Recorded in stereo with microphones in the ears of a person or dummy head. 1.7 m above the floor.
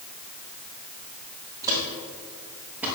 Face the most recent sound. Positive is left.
turn(degrees=-10)  # may be behind; listen again after turning